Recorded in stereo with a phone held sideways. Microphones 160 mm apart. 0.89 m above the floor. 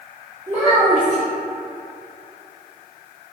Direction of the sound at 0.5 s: 30° right (ahead or behind).